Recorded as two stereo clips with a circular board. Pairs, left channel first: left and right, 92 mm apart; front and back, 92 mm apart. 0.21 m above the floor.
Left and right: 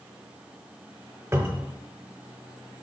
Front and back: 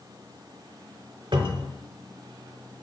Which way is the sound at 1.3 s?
155° right.